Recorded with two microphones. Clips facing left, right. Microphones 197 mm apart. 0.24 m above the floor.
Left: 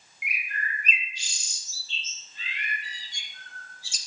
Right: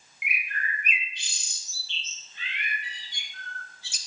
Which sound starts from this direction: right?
A bird, at 0.2 s.